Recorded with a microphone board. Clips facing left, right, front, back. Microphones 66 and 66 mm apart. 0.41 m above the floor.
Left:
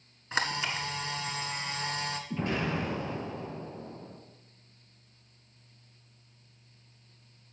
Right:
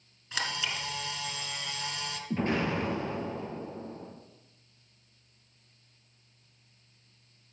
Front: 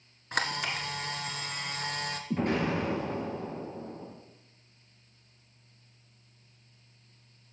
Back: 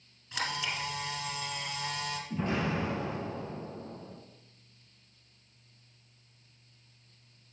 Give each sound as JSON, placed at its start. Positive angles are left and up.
{"t": 0.3, "sound": "a camera shutter", "azimuth_deg": 35, "distance_m": 1.3}
{"t": 2.3, "sound": "an explosion", "azimuth_deg": -35, "distance_m": 4.0}